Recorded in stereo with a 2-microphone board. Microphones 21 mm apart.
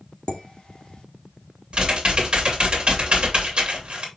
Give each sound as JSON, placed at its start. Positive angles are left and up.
{"t": 0.3, "sound": "dishes clattering", "side_deg": 40, "distance_m": 1.5}
{"t": 1.7, "sound": "typing on a keyboard", "side_deg": -50, "distance_m": 2.5}